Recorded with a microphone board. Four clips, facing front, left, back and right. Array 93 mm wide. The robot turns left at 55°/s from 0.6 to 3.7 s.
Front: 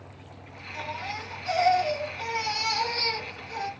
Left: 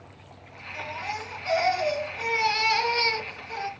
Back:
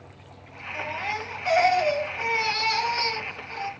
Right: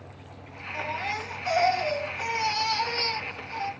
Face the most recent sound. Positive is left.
turn(degrees=70)